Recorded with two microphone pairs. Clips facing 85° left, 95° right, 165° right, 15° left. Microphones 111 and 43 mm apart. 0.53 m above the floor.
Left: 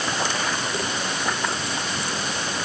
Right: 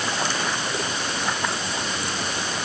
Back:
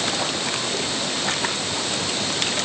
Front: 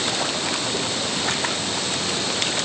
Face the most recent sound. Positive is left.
No sound to turn to.